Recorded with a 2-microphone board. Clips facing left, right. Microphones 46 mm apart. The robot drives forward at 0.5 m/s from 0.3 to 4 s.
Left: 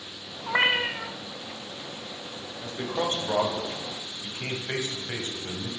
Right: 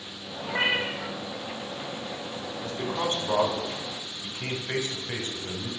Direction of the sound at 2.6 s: 25° left (ahead or behind).